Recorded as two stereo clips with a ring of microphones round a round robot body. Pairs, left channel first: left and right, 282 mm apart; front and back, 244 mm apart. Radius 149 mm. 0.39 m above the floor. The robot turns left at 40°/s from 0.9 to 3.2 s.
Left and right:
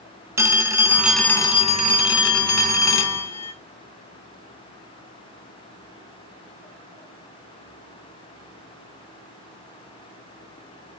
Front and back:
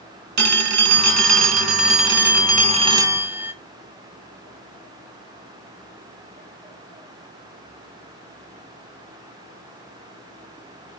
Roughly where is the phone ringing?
Behind.